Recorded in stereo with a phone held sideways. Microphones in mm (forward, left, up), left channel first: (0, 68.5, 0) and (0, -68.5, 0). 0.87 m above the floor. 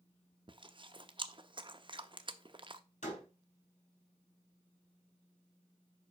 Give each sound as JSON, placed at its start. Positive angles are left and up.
{"t": 0.5, "sound": "chewing", "side_deg": -40, "distance_m": 0.6}
{"t": 3.0, "sound": "a door slam", "side_deg": 60, "distance_m": 4.0}